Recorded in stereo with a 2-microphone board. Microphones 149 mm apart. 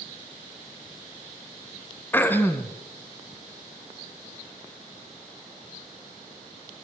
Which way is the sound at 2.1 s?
15° left (ahead or behind).